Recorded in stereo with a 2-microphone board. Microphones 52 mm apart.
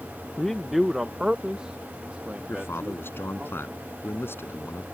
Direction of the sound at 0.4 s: 10° left (ahead or behind).